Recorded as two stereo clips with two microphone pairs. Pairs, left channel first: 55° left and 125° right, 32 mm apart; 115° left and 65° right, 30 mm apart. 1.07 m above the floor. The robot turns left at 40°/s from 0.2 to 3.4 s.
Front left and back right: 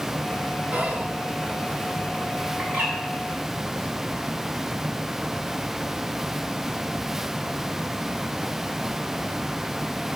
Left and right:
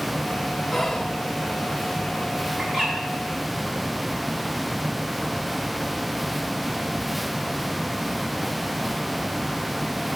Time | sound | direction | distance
0.7 | whispering | 155° right | 1.0 m
2.6 | a bird | 135° right | 5 m